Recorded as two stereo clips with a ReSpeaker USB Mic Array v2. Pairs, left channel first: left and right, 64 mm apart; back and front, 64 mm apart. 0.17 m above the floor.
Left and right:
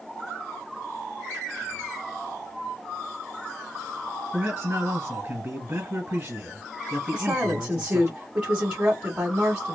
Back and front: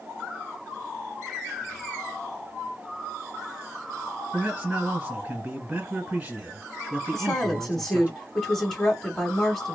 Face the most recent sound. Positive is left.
turn(degrees=-110)